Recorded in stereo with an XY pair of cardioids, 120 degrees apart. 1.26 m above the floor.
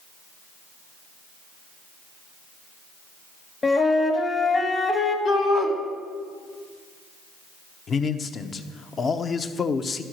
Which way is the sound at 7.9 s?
40° left.